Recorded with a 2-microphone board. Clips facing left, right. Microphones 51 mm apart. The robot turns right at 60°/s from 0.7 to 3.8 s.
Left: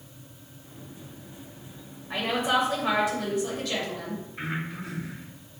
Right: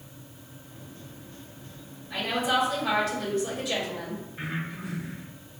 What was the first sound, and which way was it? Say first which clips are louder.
A woman speaking: left 1 dB; 100° left.